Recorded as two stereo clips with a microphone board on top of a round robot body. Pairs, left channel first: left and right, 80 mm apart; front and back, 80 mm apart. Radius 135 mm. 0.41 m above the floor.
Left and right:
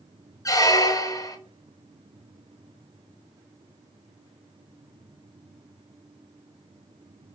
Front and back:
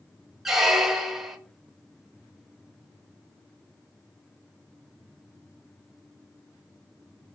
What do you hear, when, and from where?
0.5 s a squeak: 95° left, 0.9 m